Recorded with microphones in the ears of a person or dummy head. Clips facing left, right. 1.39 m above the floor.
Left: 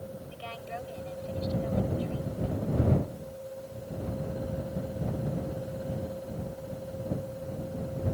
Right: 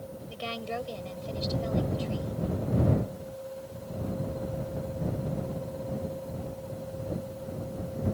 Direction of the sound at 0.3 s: 60° right (ahead or behind).